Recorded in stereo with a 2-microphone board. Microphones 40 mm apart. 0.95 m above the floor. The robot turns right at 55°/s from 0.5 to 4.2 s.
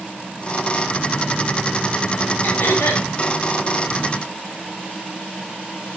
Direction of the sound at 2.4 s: 55° left.